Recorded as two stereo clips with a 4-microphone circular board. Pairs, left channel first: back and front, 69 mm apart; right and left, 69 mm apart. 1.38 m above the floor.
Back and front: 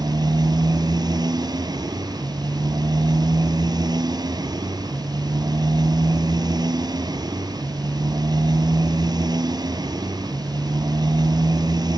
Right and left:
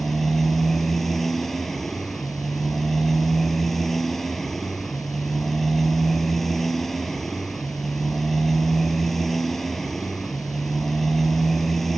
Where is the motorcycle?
5° right.